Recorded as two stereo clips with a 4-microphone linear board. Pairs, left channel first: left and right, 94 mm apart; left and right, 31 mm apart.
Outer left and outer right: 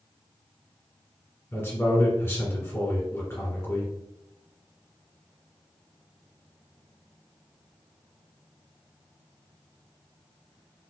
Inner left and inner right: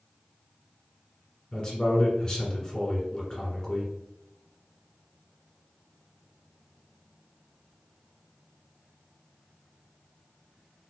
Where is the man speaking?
25° left (ahead or behind), 1.4 m.